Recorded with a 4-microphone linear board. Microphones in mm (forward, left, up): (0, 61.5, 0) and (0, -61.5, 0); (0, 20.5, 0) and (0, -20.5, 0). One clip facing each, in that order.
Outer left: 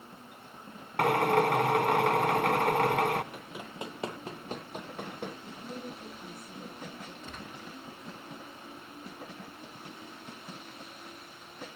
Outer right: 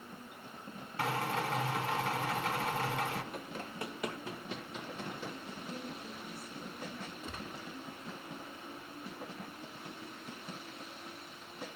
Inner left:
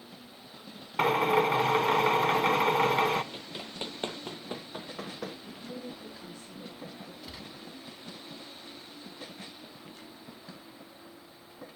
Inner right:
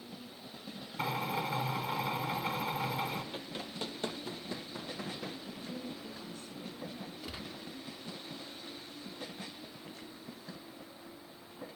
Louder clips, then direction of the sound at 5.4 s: Outer left 2 dB, inner left 1 dB; 25° left (ahead or behind).